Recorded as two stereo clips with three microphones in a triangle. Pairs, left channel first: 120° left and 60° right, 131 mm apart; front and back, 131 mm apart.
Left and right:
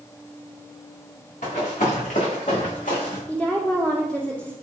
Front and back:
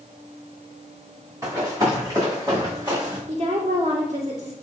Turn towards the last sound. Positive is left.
turn(degrees=-160)